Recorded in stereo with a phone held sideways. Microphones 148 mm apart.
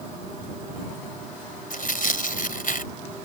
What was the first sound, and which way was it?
Tearing paper, 70° left (ahead or behind).